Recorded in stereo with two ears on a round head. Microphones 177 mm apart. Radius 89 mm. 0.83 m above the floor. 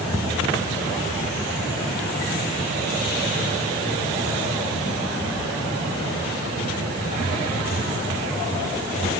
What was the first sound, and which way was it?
Only background noise.